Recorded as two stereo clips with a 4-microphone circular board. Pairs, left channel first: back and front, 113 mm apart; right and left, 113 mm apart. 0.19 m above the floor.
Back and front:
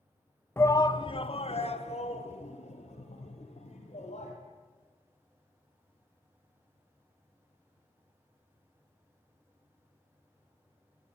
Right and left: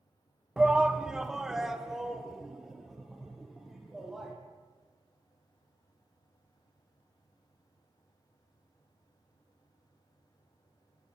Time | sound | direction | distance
0.6 | a shout | 160° left | 1.0 m